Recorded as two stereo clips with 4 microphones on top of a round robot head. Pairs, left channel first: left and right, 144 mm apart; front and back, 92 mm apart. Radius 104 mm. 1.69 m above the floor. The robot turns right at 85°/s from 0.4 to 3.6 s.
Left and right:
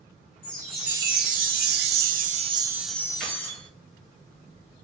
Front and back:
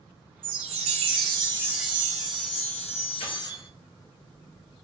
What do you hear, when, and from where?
0.4 s a chime: 150° left, 0.6 m; by 3.5 s 55° left, 0.6 m
3.2 s keys jangling: 5° right, 1.3 m; by 3.7 s 30° left, 1.3 m